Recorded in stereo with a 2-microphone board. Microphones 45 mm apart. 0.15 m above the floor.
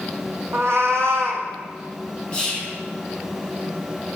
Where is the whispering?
20° left (ahead or behind), 1.2 m.